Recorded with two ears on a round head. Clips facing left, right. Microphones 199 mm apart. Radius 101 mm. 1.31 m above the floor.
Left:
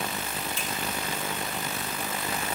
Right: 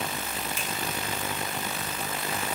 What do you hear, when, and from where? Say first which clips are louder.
0.6 s a finger snap: even; 15° right (ahead or behind), 2 m